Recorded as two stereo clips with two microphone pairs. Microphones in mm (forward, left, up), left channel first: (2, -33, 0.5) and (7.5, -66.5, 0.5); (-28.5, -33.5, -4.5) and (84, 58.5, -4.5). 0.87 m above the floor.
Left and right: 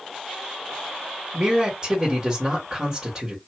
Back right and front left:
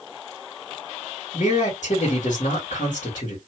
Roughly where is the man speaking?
Behind right.